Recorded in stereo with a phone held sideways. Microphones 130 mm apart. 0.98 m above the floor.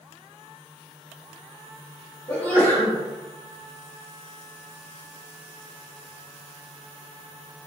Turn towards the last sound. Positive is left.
turn(degrees=15)  # may be behind; listen again after turning